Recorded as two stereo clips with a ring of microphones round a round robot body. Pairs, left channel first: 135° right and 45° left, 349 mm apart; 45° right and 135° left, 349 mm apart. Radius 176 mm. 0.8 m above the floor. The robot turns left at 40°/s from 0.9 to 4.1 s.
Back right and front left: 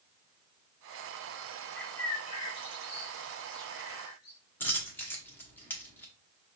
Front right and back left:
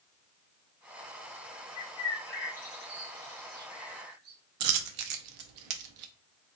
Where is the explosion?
No explosion in this recording.